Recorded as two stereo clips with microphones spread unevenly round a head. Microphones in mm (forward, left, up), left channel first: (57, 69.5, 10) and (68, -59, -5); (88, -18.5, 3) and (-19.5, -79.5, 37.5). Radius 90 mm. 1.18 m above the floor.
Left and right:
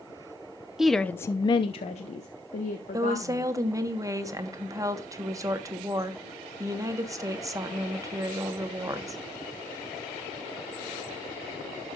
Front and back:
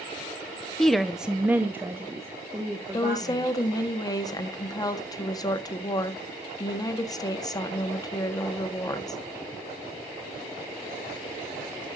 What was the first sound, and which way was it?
A woman speaking, 15° right.